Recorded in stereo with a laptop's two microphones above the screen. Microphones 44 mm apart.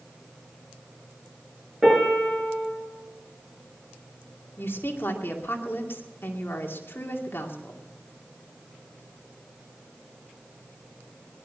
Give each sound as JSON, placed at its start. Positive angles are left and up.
{"t": 1.8, "sound": "a piano", "side_deg": -10, "distance_m": 6.0}
{"t": 4.6, "sound": "a woman speaking", "side_deg": 60, "distance_m": 2.5}